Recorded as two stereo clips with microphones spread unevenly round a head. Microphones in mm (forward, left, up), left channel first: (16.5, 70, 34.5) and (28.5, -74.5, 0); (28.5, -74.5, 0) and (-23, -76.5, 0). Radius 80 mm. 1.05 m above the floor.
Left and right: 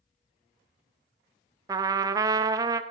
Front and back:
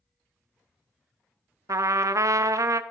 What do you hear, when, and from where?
1.7 s a trumpet: 155° right, 0.5 m